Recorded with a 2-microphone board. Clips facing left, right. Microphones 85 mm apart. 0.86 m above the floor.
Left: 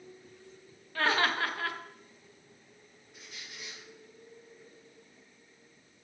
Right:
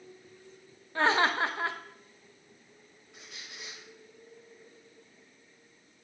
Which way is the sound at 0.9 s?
25° right (ahead or behind).